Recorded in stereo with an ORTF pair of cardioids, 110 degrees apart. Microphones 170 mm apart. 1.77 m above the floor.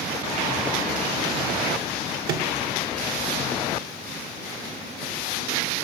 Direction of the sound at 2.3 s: 65° right.